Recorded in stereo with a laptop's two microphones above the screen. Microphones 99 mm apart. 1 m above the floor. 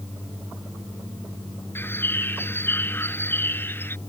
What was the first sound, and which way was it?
A bird, 20° left (ahead or behind).